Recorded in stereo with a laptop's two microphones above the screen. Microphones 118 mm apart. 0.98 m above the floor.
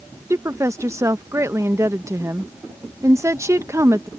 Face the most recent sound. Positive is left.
turn(degrees=-25)  # may be behind; listen again after turning